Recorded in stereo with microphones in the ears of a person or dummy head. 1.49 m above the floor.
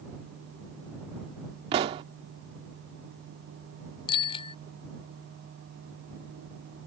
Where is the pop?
30° right (ahead or behind).